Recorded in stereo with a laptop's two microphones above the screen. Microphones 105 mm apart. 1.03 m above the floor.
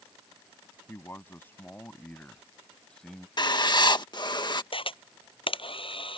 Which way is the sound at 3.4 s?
45° left (ahead or behind).